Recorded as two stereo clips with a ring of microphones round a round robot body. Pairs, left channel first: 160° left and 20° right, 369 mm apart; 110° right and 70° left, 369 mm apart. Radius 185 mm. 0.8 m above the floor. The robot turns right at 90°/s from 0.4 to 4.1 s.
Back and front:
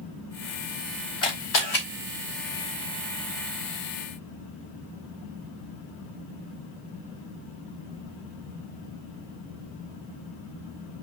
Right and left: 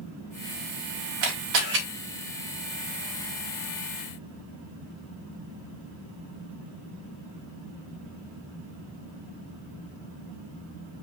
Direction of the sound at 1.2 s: 80° left.